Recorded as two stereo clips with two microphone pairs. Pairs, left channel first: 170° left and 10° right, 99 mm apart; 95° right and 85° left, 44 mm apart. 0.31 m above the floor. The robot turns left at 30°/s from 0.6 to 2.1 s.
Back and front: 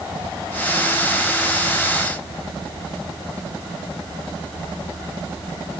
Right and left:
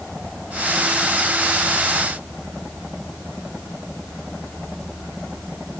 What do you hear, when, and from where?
Only background noise.